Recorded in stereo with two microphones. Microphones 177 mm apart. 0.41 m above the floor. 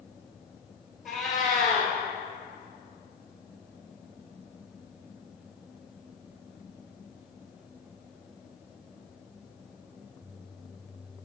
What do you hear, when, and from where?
1.1 s a cat meowing: centre (ahead or behind), 2 m